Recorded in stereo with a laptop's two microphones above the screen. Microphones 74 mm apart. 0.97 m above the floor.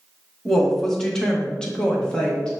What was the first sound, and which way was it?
A woman speaking, 5° left (ahead or behind).